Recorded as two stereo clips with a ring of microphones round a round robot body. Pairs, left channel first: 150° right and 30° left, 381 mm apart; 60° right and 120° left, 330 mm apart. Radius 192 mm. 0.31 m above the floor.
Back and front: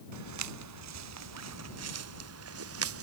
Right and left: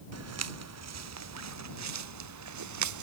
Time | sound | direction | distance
0.1 | footsteps | 80° left | ?